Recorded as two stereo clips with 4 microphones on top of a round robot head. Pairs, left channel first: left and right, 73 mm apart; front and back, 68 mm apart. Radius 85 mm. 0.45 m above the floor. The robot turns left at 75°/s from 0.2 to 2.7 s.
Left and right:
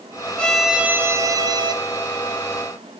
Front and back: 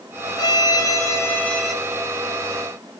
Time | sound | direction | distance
0.4 | a violin | 15° left | 1.6 m